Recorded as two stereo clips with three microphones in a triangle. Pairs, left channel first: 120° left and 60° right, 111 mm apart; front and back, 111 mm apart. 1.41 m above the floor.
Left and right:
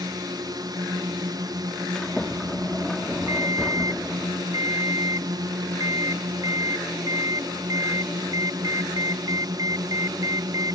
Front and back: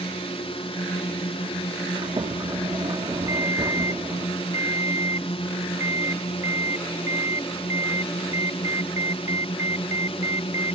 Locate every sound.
0.0 s a drone: 15° right
1.9 s a sliding door: 155° right
3.3 s a ringtone: 120° right